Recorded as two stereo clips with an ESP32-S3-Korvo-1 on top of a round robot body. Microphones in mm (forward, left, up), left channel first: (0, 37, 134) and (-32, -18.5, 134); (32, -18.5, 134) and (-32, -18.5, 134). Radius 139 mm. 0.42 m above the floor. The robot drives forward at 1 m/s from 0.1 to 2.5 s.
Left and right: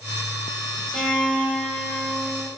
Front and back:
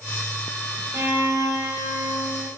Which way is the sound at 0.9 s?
145° left.